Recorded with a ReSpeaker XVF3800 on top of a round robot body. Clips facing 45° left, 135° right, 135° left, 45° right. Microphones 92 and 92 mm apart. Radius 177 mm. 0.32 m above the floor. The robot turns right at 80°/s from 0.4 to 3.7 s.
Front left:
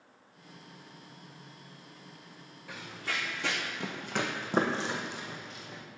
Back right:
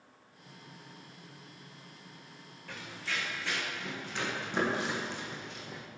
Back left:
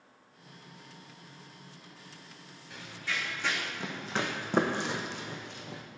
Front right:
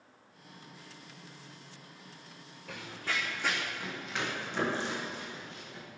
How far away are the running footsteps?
About 2.5 m.